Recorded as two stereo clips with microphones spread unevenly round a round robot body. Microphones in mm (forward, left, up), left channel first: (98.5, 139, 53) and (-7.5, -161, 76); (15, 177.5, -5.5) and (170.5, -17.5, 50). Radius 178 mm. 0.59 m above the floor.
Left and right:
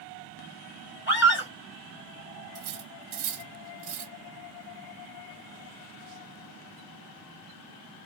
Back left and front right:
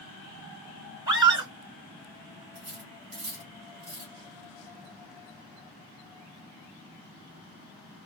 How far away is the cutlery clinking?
About 1.3 m.